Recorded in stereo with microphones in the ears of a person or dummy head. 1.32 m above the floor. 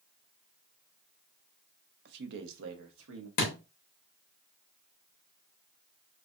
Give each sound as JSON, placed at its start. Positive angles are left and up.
{"t": 2.0, "sound": "a man speaking", "side_deg": -55, "distance_m": 0.6}
{"t": 3.4, "sound": "a thud", "side_deg": 45, "distance_m": 1.1}